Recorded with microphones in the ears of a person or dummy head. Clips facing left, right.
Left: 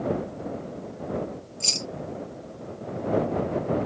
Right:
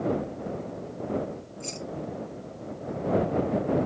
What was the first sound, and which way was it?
Keys jangling, 45° left (ahead or behind).